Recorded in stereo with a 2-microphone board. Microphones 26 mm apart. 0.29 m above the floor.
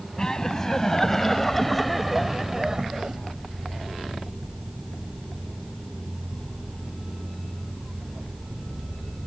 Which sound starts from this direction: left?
Laughter, at 0.2 s.